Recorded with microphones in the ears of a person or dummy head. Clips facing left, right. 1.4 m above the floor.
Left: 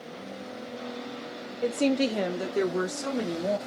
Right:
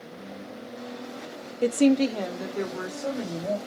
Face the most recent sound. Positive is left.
turn(degrees=60)  # may be behind; listen again after turning